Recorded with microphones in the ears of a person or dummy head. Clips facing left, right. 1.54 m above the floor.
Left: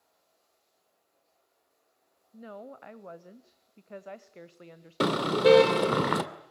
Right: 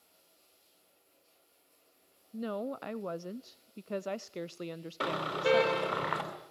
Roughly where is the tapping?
I don't hear tapping.